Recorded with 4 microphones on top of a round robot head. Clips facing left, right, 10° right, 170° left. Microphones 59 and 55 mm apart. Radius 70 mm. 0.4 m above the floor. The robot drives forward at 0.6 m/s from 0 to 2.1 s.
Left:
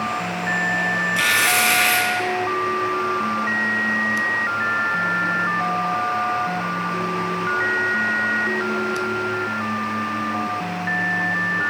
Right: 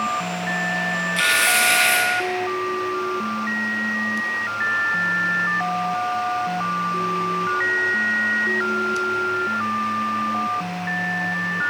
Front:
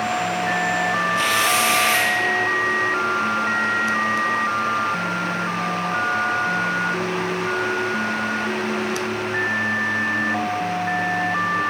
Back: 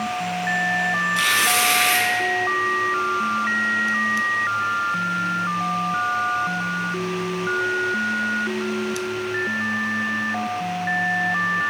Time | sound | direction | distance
1.2 | tearing paper | 170° left | 3 m